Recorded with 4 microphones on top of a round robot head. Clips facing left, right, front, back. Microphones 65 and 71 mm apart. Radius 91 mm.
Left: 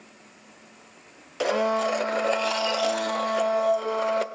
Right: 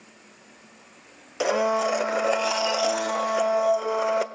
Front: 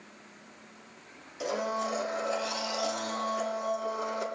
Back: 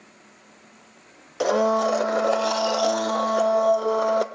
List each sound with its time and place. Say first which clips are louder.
1.4 s a blender: right 1 dB, back 11 dB; 175° right, 0.6 m